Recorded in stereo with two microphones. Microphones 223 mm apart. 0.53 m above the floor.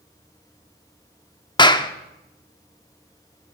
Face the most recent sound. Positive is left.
turn(degrees=20)  # may be behind; listen again after turning